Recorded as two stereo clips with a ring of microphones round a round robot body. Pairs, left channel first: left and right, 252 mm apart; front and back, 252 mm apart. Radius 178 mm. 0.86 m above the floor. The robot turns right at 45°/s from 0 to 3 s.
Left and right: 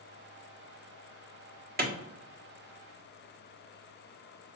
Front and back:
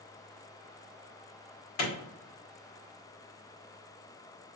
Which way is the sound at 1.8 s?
35° right.